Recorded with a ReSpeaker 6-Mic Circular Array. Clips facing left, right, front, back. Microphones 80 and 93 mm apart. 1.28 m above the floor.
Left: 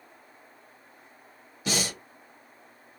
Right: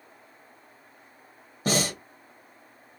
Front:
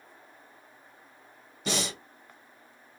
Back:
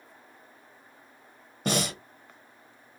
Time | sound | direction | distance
1.6 | breathing | 140° right | 0.8 m